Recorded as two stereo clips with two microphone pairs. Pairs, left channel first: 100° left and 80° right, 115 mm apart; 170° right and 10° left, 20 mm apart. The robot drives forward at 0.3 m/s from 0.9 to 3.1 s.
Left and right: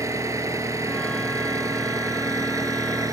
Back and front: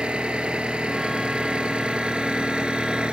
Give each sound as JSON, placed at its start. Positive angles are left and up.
{"t": 0.0, "sound": "an engine running", "azimuth_deg": -15}